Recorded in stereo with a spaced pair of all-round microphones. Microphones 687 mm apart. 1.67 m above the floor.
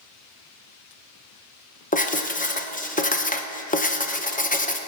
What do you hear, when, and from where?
1.9 s writing: 10° left (ahead or behind), 0.7 m